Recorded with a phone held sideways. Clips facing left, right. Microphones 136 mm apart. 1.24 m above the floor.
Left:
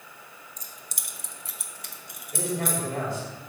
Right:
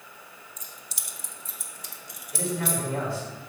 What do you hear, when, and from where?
0.6 s keys jangling: 35° left (ahead or behind), 0.8 m; by 2.8 s 45° left (ahead or behind), 1.2 m
2.3 s a man speaking: 50° left (ahead or behind), 3.5 m